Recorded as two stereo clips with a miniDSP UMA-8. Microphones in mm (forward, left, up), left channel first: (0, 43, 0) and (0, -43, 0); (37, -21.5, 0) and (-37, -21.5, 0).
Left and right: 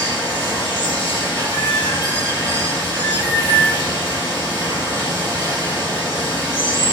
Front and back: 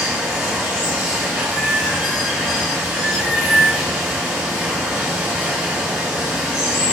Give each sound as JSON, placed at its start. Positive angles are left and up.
{"t": 0.0, "sound": "running water", "azimuth_deg": 100, "distance_m": 3.0}